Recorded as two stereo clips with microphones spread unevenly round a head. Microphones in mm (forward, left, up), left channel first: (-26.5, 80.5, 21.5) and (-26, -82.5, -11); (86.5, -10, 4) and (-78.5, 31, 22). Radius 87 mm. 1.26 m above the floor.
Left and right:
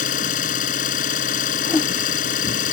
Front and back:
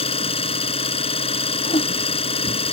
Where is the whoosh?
35° left.